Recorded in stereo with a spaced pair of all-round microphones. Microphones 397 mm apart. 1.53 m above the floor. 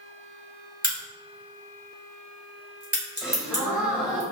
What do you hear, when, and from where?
0.8 s a crack: 20° right (ahead or behind), 2 m
3.2 s a gasp: centre (ahead or behind), 1.1 m